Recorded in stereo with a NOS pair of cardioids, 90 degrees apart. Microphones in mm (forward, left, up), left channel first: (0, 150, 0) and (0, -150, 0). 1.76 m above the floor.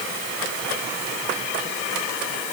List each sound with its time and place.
Only background noise.